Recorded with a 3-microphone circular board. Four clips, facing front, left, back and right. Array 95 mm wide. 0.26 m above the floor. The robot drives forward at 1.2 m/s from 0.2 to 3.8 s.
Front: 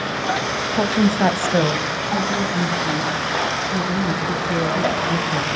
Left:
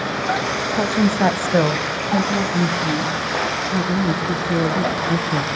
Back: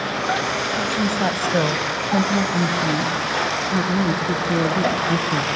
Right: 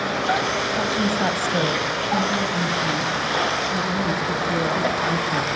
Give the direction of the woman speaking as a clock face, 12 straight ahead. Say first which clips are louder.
Left 7 dB, front 7 dB; 11 o'clock.